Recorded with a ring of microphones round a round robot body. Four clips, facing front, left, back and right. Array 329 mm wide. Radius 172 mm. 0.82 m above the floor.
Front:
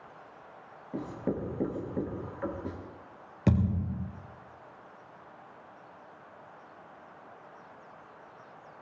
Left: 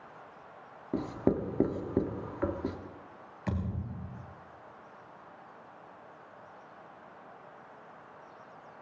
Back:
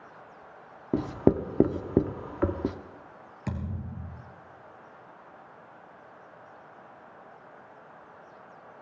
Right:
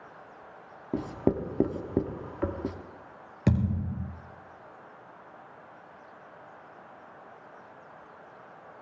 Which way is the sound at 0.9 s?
175° right.